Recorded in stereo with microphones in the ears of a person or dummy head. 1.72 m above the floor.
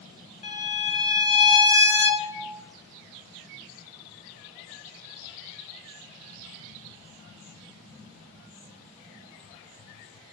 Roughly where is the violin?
Left.